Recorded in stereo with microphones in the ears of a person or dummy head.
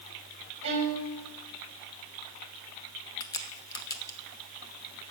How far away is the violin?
About 4 m.